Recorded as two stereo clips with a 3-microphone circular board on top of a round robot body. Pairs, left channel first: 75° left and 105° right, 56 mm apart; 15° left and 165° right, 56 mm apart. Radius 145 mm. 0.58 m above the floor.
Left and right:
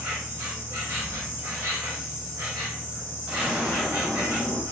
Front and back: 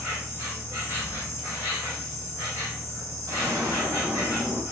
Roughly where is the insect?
Behind right.